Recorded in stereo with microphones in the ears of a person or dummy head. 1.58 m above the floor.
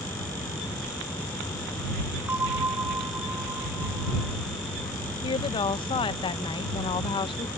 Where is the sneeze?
I don't hear a sneeze.